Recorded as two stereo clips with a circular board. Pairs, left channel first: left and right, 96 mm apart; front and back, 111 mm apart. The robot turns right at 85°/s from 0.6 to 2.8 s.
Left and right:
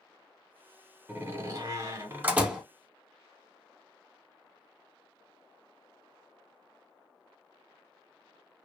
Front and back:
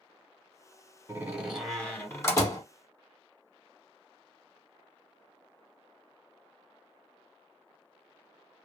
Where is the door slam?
140° right, 0.8 m; by 2.6 s 5° right, 0.8 m.